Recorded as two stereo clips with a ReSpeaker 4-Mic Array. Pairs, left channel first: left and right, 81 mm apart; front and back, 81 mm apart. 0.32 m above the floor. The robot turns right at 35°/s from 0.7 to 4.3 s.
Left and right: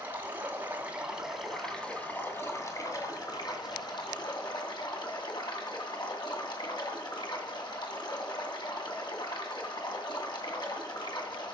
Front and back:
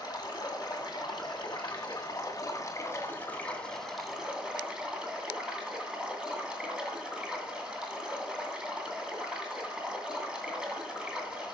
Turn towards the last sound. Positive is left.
turn(degrees=100)